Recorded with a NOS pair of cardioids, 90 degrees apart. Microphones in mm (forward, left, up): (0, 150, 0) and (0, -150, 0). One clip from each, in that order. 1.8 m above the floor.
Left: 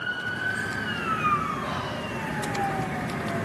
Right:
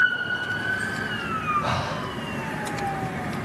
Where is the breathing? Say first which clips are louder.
Right 4 dB; 70° right, 2.5 m.